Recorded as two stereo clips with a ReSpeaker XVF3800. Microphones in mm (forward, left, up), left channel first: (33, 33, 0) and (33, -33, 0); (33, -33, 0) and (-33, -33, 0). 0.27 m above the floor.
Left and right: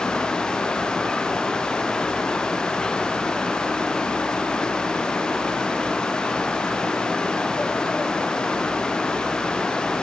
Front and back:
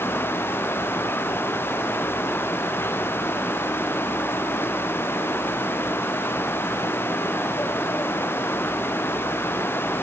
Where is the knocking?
I don't hear knocking.